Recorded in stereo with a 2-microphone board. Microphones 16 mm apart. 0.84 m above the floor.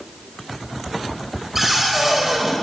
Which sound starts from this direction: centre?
A cupboard door, at 1.6 s.